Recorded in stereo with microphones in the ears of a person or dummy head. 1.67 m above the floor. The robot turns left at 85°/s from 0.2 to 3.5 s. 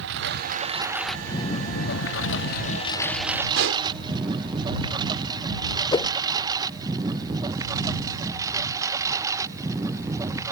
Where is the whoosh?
25° left (ahead or behind).